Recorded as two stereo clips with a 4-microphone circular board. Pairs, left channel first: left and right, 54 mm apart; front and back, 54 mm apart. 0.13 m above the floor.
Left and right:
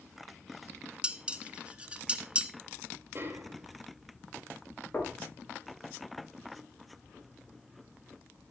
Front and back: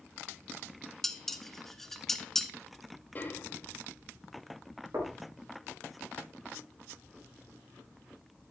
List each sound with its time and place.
1.0 s dishes clattering: 70° right, 0.8 m
3.1 s a snare drum: 50° right, 1.7 m
4.9 s knocking: 150° left, 5.5 m